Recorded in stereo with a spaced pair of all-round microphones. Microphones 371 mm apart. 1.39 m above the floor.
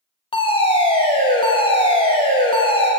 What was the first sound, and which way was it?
A fire alarm, 15° left (ahead or behind).